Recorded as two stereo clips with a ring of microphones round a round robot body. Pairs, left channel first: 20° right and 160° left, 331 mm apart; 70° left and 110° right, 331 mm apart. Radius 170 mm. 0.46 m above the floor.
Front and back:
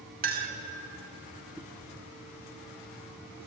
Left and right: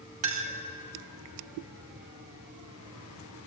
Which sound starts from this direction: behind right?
A clink, at 0.2 s.